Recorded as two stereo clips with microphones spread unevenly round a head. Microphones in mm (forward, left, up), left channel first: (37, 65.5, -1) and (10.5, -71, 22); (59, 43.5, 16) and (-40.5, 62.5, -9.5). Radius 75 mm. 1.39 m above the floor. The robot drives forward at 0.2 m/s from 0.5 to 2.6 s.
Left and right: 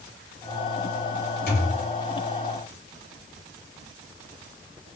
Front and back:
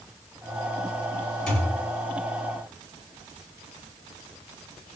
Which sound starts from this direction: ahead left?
A thud, at 1.5 s.